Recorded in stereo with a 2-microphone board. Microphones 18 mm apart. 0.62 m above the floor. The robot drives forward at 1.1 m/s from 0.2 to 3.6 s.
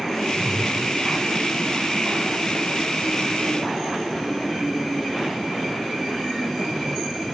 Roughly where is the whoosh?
Right.